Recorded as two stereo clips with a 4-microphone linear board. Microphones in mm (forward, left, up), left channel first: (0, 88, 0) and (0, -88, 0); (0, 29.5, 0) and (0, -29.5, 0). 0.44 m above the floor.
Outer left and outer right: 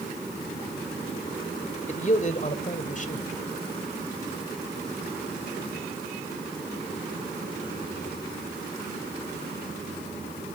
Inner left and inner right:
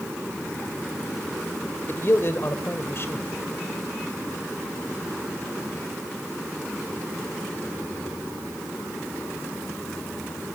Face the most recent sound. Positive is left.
turn(degrees=45)  # may be behind; listen again after turning